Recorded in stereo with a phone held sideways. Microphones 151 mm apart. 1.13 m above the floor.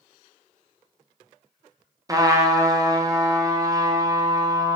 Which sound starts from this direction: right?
A trumpet, at 2.1 s.